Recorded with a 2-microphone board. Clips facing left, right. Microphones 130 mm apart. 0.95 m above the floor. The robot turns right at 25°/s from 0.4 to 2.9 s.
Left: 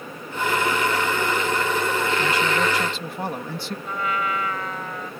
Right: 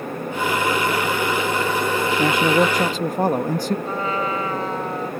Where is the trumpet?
35° right (ahead or behind).